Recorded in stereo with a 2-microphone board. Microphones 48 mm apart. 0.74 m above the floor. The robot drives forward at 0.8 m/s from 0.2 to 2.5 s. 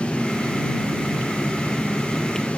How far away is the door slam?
No door slam in this recording.